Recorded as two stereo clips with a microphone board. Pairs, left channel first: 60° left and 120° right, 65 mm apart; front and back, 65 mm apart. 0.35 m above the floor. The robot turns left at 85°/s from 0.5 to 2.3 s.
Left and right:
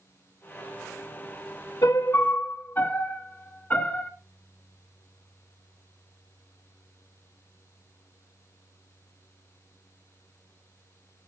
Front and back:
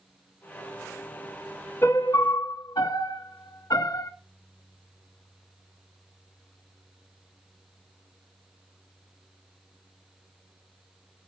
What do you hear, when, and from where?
1.8 s a piano: 40° left, 0.7 m; by 4.1 s straight ahead, 0.7 m